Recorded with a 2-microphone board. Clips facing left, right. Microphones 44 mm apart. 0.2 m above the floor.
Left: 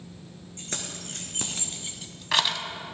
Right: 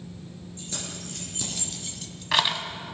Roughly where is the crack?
No crack in this recording.